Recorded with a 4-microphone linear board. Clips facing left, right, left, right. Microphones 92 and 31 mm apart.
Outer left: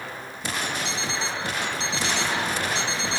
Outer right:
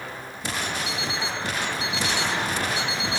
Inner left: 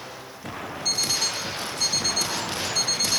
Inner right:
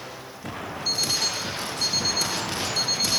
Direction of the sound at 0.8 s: 85° left.